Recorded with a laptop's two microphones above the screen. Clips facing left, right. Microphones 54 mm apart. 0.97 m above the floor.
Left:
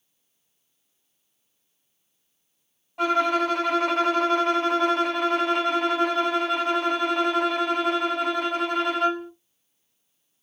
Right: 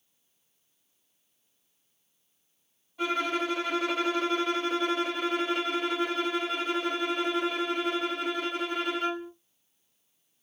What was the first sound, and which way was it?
A violin, 65° left (ahead or behind).